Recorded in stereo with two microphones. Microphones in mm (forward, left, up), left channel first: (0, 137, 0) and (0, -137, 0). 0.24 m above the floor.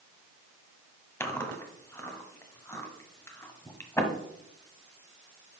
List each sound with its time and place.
1.2 s chewing: 10° left (ahead or behind), 0.8 m